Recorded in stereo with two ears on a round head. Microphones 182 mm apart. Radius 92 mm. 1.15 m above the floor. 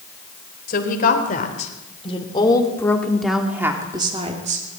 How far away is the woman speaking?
About 4 m.